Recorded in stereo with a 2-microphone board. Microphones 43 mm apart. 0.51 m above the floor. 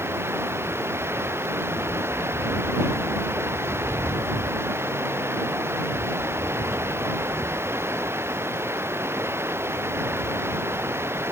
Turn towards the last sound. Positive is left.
turn(degrees=-75)  # may be behind; listen again after turning